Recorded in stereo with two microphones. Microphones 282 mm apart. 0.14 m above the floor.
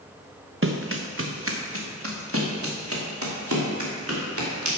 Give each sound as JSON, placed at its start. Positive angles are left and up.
{"t": 0.6, "sound": "running footsteps", "side_deg": -45, "distance_m": 1.0}